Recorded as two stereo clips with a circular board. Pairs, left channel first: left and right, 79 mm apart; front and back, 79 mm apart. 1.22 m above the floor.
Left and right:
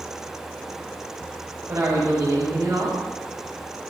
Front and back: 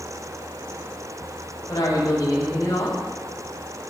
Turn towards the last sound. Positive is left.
turn(degrees=-45)